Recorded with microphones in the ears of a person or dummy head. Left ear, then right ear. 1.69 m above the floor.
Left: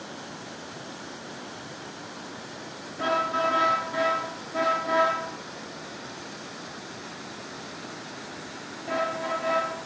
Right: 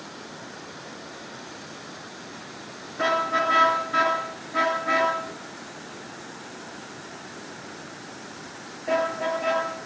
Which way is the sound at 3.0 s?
35° right (ahead or behind).